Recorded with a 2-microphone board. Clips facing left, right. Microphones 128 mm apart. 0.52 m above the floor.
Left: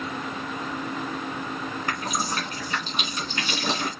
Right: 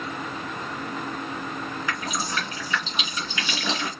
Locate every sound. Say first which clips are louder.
1.9 s dripping: left 2 dB; 50° left (ahead or behind), 2.5 m